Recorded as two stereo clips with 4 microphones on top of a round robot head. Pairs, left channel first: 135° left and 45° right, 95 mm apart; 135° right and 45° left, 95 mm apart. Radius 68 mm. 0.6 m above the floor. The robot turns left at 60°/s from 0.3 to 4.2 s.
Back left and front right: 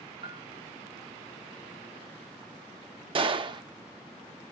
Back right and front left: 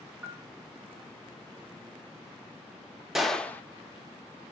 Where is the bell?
30° right, 1.8 m; by 0.5 s 40° right, 1.8 m.